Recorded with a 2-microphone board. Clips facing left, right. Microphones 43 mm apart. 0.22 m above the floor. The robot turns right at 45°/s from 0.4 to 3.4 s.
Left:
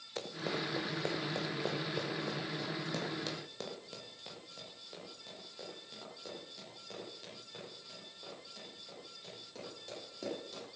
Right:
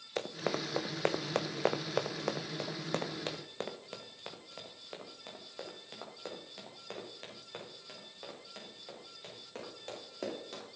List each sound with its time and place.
0.2 s running footsteps: 40° right (ahead or behind), 1.4 m; by 10.7 s 45° right (ahead or behind), 9.5 m